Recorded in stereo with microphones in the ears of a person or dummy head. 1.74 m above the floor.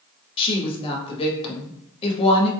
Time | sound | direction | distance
0.4 | a woman speaking | 30° left (ahead or behind) | 1.0 m